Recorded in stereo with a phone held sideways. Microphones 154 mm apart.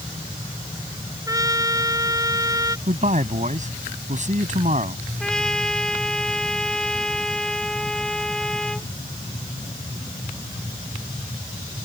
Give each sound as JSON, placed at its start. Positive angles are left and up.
{"t": 1.3, "sound": "a trumpet", "side_deg": -25}
{"t": 2.9, "sound": "a man speaking", "side_deg": -55}
{"t": 5.2, "sound": "a trumpet", "side_deg": 5}